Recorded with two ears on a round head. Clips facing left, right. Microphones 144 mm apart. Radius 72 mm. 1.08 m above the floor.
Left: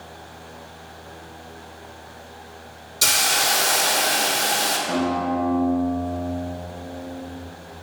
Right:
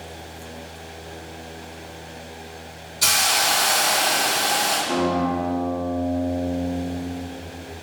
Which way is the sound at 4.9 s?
60° left (ahead or behind).